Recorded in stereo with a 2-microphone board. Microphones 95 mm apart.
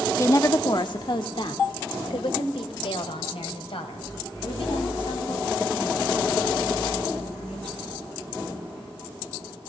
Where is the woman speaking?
30° left (ahead or behind), 0.8 m; by 7.8 s 85° left, 6.5 m.